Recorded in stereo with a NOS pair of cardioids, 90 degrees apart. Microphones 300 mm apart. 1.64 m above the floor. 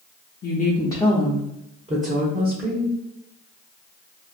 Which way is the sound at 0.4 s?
35° left.